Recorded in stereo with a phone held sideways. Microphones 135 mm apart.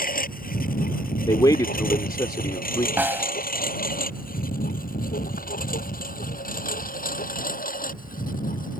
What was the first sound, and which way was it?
A lawn mower, 80° left.